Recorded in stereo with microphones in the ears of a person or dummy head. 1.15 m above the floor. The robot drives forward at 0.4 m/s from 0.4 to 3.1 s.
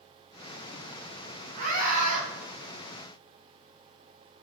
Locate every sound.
1.6 s a scream: 45° right (ahead or behind), 2.0 m; by 2.2 s 40° right (ahead or behind), 2 m